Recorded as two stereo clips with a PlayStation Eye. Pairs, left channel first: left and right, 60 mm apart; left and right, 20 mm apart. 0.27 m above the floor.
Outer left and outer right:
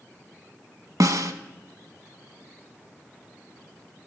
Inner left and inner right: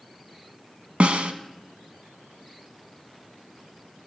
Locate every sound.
1.0 s a snare drum: 70° right (ahead or behind), 0.6 m